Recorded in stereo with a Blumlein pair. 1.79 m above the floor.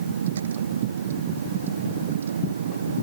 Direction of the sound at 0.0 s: 65° right.